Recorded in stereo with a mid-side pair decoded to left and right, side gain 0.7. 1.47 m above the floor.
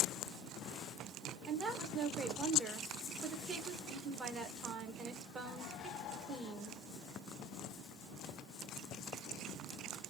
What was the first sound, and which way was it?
A woman speaking, 30° right.